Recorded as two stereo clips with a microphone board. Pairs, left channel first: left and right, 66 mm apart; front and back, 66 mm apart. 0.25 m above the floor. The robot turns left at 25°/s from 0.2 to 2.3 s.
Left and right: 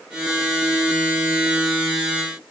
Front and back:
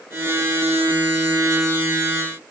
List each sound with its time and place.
Only background noise.